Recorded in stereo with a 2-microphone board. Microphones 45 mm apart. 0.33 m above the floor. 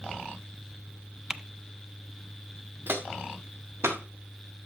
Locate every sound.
1.3 s typing on a keyboard: 15° right (ahead or behind), 0.5 m
2.9 s footsteps: 45° right (ahead or behind), 2.5 m; by 4.0 s 65° right (ahead or behind), 3.5 m